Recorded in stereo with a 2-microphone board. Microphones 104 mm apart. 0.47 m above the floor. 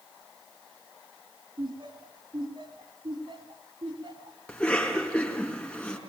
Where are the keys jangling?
I don't hear keys jangling.